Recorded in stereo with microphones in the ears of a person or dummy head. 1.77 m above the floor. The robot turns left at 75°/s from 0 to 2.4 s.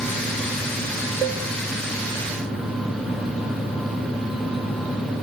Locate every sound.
1.2 s a cowbell: 25° right (ahead or behind), 5 m; by 1.4 s 40° right (ahead or behind), 5 m